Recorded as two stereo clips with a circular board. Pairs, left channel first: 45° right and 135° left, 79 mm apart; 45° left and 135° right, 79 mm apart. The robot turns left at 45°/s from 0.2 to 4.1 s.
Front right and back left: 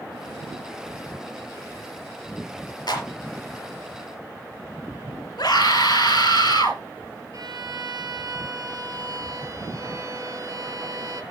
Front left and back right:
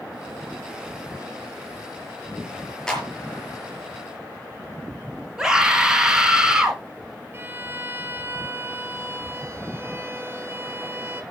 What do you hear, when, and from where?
2.9 s a clap: 35° right, 5 m; by 3.1 s 45° right, 5 m
5.4 s a scream: 55° right, 4 m
7.3 s a violin: 170° left, 2 m